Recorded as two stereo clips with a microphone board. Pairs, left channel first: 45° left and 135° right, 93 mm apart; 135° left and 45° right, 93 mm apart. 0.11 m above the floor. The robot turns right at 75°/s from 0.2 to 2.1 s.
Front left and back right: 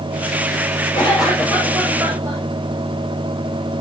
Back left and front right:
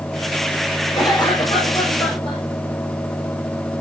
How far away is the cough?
About 6.5 m.